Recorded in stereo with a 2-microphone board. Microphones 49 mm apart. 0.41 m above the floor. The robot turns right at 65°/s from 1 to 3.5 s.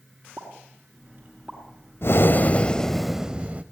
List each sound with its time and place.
0.4 s a pop: 45° right (ahead or behind), 5.5 m; by 2.8 s 65° left (ahead or behind), 5.5 m
2.0 s breathing: 115° left, 0.9 m; by 3.6 s 150° right, 0.9 m